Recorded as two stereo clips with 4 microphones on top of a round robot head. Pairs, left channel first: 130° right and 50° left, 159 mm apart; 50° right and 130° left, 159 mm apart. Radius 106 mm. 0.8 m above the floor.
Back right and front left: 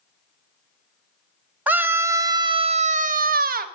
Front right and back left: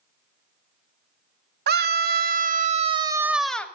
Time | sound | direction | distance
1.7 | a scream | 130° left | 1.3 m